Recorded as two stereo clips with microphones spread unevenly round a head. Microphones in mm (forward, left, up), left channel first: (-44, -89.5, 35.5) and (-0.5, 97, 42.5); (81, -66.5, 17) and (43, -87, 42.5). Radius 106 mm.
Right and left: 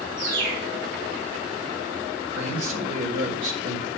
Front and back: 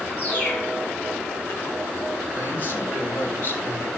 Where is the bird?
100° left, 7.5 m.